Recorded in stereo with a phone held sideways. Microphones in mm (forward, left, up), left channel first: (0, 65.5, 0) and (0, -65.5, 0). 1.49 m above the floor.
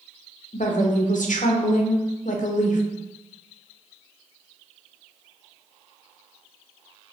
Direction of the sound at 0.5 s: 80° left.